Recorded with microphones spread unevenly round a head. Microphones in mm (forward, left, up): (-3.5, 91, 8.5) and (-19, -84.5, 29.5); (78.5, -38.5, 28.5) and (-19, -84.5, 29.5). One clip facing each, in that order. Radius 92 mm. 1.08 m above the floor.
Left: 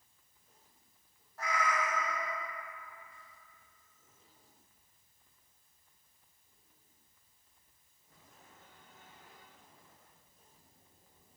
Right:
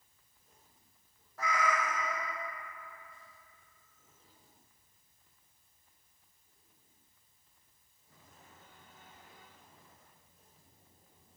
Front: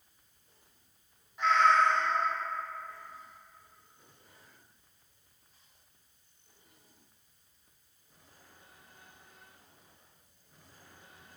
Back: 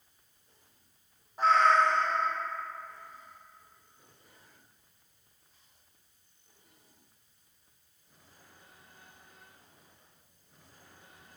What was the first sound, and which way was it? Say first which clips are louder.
A cat meowing: right 1 dB, back 1 dB; 105° right.